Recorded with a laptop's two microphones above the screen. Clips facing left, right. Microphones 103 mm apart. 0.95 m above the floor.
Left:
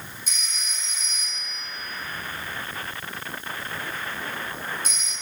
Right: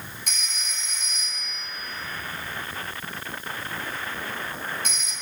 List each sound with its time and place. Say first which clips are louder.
0.3 s a phone ringing: right 1 dB; 65° right (ahead or behind), 3.5 m